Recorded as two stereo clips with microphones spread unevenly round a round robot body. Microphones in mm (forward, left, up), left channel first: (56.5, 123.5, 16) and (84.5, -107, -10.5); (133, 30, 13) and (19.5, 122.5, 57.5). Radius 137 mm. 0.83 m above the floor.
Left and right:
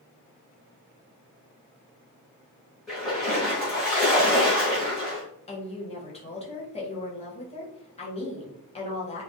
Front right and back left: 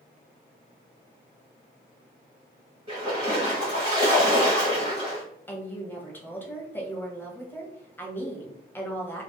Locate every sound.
2.9 s a splash: straight behind, 0.9 m
5.5 s a woman speaking: 30° left, 0.9 m